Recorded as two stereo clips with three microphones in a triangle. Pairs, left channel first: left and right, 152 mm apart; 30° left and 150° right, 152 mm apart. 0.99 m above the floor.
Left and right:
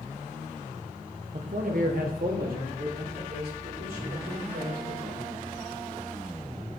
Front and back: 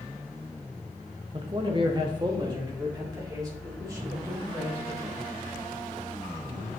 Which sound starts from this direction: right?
A man speaking, at 1.3 s.